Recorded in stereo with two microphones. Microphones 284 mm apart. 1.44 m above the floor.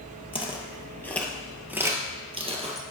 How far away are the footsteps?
About 1.6 m.